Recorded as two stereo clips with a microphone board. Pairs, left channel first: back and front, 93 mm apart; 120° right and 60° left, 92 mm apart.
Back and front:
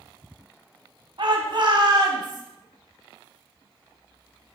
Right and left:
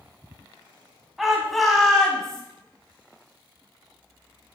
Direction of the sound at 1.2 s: 30° right.